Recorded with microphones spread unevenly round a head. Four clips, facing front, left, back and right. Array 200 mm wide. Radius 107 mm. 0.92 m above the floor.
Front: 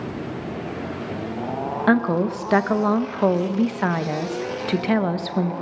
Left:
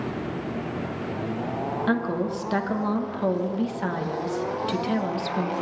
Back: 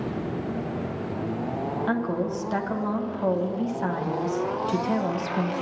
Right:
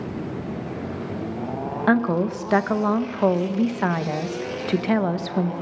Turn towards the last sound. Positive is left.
turn(degrees=-40)